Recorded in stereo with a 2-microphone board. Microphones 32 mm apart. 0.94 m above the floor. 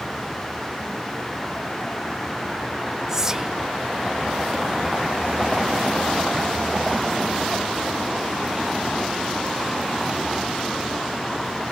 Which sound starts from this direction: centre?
Whispering, at 3.1 s.